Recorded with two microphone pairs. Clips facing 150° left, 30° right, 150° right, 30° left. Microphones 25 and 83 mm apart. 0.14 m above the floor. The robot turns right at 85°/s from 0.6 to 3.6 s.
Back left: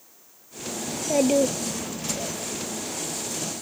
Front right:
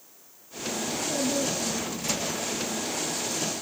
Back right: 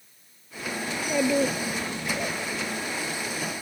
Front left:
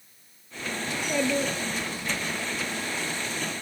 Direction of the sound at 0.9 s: 105° left.